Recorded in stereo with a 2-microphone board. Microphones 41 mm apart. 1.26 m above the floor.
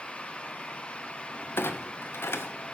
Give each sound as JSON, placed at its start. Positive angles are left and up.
{"t": 1.6, "sound": "a clunk", "side_deg": 70, "distance_m": 0.8}